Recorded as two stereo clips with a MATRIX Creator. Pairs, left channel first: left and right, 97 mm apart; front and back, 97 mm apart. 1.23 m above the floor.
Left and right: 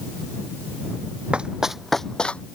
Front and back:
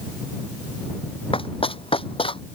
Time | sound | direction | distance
1.3 | running footsteps | 10° right | ?